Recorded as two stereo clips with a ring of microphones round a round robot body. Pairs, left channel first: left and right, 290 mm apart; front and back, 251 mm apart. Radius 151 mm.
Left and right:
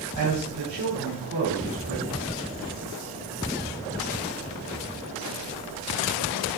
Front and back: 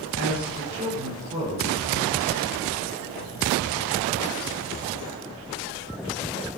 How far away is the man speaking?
About 4.5 m.